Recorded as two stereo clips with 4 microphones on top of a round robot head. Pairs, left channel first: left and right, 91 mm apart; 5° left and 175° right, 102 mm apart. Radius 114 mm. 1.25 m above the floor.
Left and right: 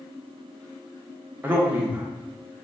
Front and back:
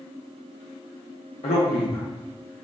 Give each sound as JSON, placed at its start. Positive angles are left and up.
{"t": 1.4, "sound": "a man speaking", "azimuth_deg": -20, "distance_m": 0.6}